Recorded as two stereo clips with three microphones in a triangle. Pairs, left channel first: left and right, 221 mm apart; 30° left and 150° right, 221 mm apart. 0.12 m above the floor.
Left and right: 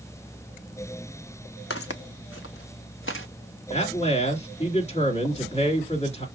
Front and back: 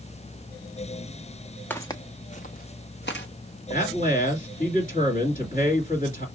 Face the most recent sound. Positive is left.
turn(degrees=45)